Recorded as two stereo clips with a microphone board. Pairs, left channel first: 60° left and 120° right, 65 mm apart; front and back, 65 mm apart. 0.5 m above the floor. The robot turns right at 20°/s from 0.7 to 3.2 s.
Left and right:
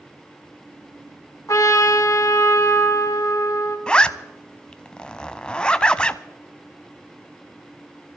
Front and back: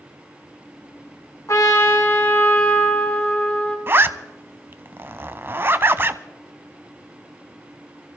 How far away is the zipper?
About 0.5 m.